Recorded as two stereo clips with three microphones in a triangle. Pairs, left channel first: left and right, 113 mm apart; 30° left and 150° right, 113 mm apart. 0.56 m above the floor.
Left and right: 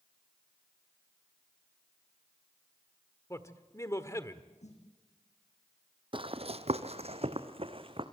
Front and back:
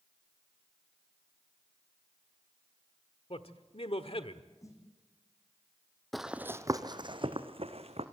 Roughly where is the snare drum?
Left.